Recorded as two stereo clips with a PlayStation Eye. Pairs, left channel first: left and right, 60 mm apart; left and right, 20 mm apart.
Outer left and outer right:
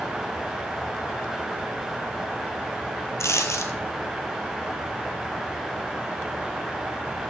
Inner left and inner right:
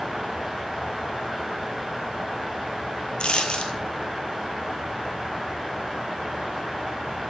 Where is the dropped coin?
55° left (ahead or behind), 1.1 m.